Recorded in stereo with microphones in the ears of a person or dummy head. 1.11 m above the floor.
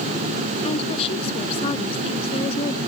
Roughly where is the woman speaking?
Left.